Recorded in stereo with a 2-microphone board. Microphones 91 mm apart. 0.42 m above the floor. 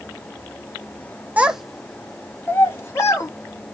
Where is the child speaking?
15° right (ahead or behind), 0.6 m; by 3.3 s 35° left (ahead or behind), 1.7 m.